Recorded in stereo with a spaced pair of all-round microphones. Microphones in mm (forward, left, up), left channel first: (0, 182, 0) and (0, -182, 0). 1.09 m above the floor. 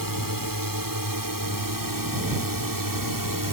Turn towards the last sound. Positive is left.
turn(degrees=-70)  # may be behind; listen again after turning